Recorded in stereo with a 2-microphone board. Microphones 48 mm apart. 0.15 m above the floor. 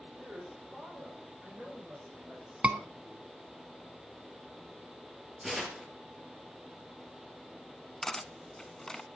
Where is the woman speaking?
20° right (ahead or behind), 9.5 m; by 3.4 s 15° right (ahead or behind), 8 m.